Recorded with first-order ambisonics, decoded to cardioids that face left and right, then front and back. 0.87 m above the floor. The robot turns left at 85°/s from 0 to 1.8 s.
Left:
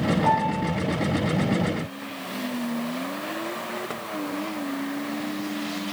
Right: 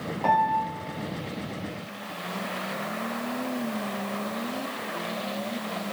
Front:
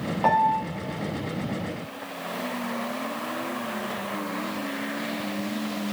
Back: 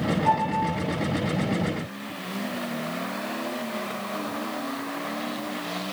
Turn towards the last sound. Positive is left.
turn(degrees=-145)